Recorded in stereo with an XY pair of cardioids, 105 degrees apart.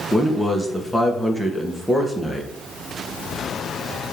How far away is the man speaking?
About 2 m.